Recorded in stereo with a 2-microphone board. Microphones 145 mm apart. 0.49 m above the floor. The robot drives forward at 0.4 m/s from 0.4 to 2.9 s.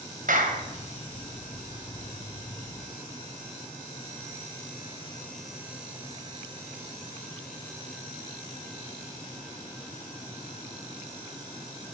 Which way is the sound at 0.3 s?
70° right (ahead or behind).